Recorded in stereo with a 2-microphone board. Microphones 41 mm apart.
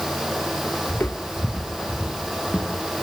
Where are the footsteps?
65° left (ahead or behind), 2 m; by 3.0 s 40° left (ahead or behind), 4.5 m.